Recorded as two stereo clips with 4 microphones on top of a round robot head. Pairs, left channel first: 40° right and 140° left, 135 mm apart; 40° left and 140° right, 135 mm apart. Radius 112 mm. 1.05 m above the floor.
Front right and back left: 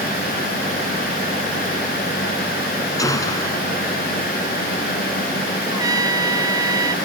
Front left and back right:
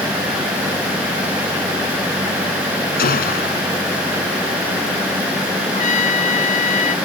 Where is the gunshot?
30° left.